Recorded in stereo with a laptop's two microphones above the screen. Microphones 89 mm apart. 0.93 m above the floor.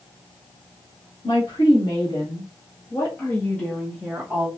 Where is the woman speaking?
65° left (ahead or behind), 1.9 m; by 4.5 s 30° right (ahead or behind), 0.9 m.